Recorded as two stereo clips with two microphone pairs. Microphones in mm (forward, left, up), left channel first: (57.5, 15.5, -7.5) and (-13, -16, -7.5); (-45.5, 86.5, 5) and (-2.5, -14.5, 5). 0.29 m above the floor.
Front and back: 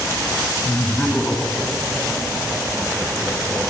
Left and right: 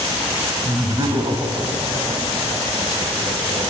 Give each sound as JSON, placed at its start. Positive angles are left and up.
{"t": 0.7, "sound": "laughter", "azimuth_deg": -20, "distance_m": 1.9}